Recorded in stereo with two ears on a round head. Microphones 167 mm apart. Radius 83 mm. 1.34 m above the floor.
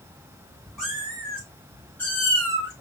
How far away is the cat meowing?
About 3.5 m.